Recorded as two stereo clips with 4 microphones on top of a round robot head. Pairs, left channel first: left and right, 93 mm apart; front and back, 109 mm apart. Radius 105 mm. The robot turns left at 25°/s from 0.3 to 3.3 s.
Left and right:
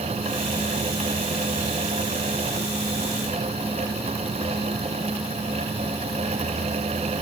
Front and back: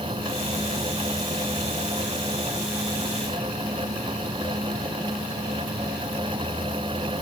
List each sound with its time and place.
Only background noise.